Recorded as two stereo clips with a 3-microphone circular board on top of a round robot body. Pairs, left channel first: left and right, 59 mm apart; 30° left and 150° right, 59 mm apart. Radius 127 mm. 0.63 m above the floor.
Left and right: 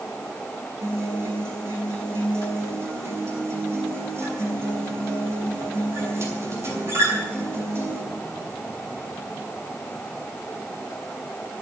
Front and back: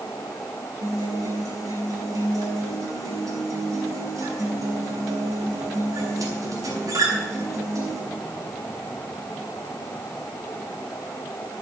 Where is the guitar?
130° right, 5 m.